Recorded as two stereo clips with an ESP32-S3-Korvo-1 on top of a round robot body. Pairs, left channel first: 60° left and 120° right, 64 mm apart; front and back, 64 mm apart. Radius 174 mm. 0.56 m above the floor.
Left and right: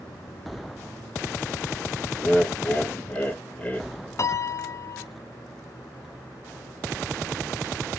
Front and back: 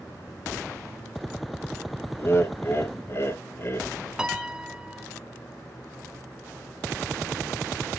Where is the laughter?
5° left, 1.4 m.